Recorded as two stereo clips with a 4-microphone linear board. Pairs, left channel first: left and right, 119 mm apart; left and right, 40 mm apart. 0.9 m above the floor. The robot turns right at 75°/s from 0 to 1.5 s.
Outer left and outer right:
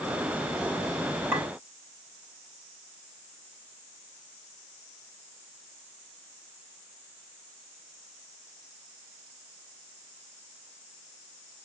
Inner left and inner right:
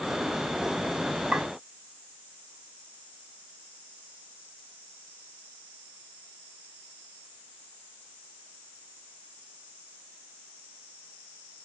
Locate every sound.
1.3 s a clink: 20° right (ahead or behind), 2 m; by 1.5 s 5° right (ahead or behind), 2 m